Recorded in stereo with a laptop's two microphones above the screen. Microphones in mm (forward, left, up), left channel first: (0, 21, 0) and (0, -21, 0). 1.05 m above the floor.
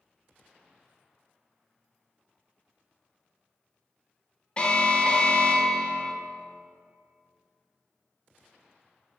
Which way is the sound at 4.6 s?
25° left (ahead or behind).